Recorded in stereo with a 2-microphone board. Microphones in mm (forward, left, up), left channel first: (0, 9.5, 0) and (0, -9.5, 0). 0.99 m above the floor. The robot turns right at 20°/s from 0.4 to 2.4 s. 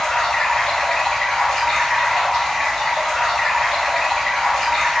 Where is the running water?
130° left, 1.7 m; by 5.0 s 170° left, 1.7 m.